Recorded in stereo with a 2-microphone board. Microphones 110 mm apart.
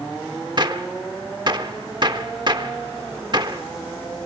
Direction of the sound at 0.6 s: 45° right (ahead or behind).